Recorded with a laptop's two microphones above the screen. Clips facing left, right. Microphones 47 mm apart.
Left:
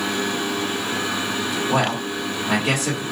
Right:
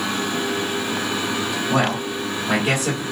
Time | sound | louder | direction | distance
1.7 | a man speaking | right 1 dB | 25° left (ahead or behind) | 1.3 m